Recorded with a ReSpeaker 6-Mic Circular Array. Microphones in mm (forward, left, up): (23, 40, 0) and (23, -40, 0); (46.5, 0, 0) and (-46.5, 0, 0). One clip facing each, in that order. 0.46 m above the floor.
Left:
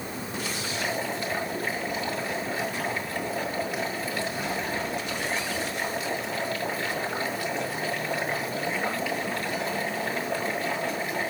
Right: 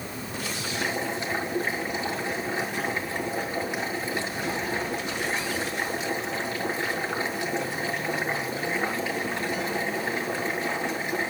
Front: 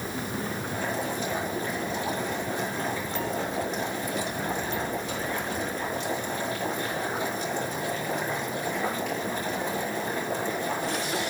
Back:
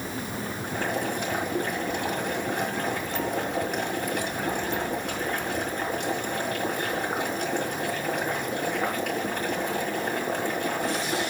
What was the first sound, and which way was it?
Boiling, 155° right.